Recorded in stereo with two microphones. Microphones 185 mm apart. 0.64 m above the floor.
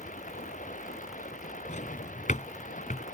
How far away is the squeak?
I don't hear a squeak.